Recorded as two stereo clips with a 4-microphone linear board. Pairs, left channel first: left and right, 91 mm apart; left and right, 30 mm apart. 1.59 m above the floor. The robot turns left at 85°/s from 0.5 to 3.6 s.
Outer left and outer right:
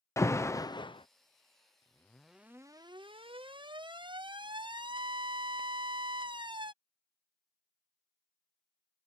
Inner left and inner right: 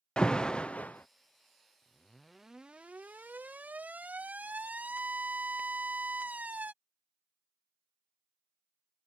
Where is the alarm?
30° left (ahead or behind); by 6.7 s 65° right (ahead or behind).